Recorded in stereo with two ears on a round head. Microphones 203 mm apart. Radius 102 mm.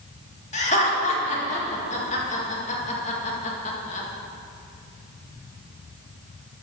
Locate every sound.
0.5 s laughter: 30° left (ahead or behind), 1.9 m